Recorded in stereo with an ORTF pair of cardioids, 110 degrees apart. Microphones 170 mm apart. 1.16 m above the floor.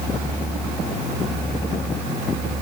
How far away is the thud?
I don't hear a thud.